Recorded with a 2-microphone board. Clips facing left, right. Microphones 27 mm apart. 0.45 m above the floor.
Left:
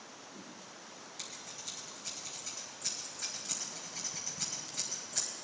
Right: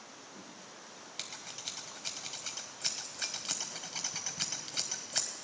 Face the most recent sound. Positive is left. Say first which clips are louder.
# right 4 dB
turn(degrees=-80)